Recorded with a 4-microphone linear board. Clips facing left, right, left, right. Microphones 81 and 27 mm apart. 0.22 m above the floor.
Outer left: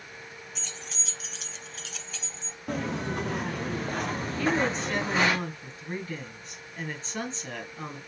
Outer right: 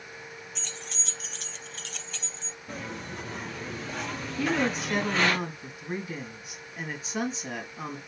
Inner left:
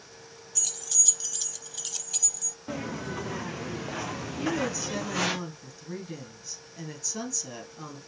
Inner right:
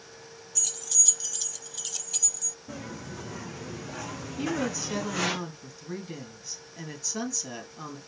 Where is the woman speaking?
10° right (ahead or behind), 1.6 m.